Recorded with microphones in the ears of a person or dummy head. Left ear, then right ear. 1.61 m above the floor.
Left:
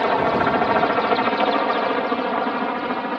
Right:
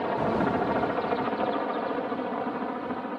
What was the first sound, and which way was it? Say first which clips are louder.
A helicopter: left 8 dB; 65° left (ahead or behind).